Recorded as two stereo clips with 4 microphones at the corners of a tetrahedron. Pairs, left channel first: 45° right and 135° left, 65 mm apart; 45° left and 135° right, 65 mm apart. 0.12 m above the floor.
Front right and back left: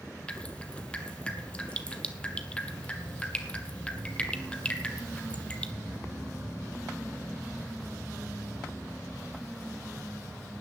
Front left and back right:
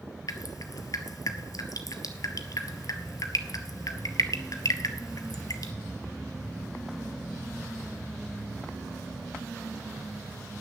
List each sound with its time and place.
0.3 s dripping: 25° left, 0.9 m